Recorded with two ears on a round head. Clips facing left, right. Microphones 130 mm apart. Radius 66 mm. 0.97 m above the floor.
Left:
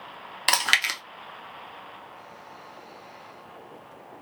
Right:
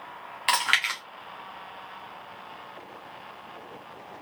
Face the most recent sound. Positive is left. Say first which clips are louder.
# even
turn(degrees=45)  # may be behind; listen again after turning